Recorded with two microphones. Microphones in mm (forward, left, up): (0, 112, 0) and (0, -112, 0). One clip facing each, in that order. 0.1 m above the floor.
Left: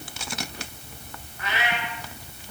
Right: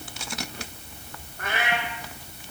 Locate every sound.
1.4 s a cat meowing: 50° right (ahead or behind), 6 m